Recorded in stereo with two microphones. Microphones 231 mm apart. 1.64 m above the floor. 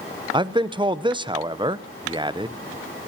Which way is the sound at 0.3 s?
20° right (ahead or behind).